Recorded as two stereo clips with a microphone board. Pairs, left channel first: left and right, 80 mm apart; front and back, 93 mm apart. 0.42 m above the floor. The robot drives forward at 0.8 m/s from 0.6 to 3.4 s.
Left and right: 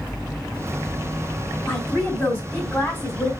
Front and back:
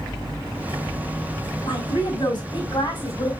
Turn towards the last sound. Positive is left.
turn(degrees=35)